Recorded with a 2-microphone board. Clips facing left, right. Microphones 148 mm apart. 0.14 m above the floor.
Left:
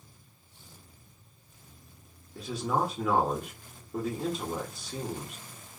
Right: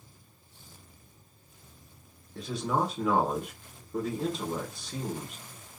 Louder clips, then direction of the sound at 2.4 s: Even; 5° left (ahead or behind).